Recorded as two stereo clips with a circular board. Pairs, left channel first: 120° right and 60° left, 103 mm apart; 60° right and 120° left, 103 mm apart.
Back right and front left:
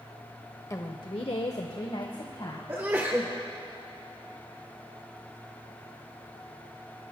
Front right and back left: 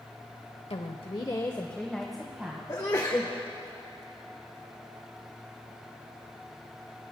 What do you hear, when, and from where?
0.7 s a woman speaking: 65° right, 1.0 m; by 2.6 s 160° right, 1.8 m
2.7 s a sneeze: 10° right, 1.1 m